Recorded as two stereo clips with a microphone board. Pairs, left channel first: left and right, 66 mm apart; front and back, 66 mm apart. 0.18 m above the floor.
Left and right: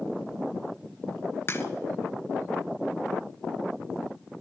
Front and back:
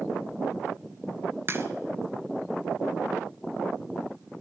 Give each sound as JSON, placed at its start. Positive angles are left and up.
{"t": 1.5, "sound": "a crack", "azimuth_deg": 135, "distance_m": 1.2}